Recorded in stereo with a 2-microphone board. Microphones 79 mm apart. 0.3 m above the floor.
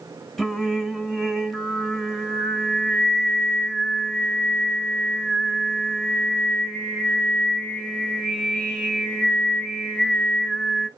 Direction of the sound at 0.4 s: Centre (ahead or behind).